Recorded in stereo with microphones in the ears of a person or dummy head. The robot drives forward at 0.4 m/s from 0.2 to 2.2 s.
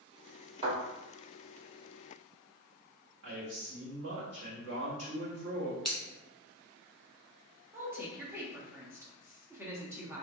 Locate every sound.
0.6 s a thud: 35° right (ahead or behind), 1.7 m
3.2 s a man speaking: 70° right (ahead or behind), 1.3 m
5.8 s scissors: centre (ahead or behind), 0.7 m
7.7 s a woman speaking: 10° right (ahead or behind), 0.7 m